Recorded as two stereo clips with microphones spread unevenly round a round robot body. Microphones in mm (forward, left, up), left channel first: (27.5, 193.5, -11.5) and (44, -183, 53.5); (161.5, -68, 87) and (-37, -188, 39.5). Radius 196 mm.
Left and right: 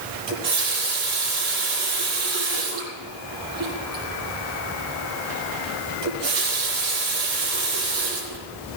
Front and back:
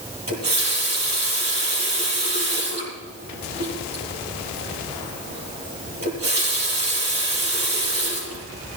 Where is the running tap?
125° right, 9 m.